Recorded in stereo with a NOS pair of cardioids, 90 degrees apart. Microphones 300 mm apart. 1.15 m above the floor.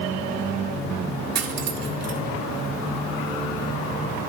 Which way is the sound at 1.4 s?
60° right.